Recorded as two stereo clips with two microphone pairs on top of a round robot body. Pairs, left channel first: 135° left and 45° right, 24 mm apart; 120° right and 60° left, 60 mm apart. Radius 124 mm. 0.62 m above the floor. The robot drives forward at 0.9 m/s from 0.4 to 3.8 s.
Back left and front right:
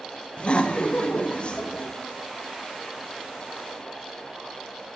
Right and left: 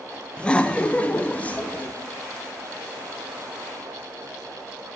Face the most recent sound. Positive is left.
turn(degrees=180)